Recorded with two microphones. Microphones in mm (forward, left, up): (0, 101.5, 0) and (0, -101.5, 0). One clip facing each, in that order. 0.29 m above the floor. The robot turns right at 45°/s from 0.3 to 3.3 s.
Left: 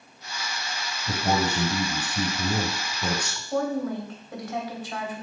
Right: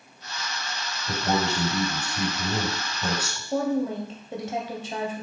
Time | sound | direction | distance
1.1 | a man speaking | 90° left | 2.5 m
3.5 | a woman speaking | 25° right (ahead or behind) | 1.7 m